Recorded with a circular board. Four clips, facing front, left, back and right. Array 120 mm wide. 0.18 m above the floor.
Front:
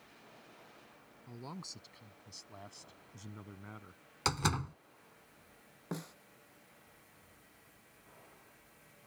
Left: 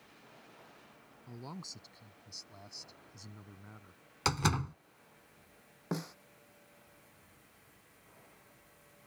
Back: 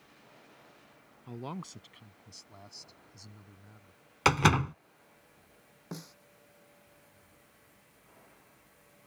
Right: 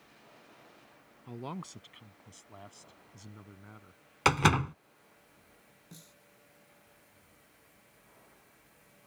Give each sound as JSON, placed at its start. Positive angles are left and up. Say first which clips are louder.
{"t": 1.3, "sound": "a man speaking", "louder": "right 6 dB, back 7 dB", "azimuth_deg": -135}
{"t": 4.2, "sound": "a door slam", "louder": "right 7 dB, back 9 dB", "azimuth_deg": -140}
{"t": 5.9, "sound": "a snare drum", "louder": "left 19 dB, front 2 dB", "azimuth_deg": 80}